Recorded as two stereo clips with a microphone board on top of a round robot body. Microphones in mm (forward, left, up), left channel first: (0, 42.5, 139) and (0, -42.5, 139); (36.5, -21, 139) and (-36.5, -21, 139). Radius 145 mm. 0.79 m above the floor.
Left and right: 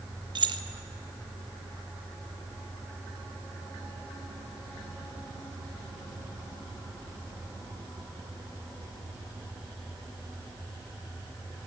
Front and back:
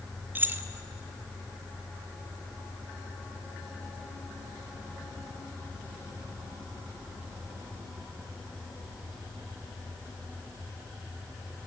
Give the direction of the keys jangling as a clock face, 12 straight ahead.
4 o'clock.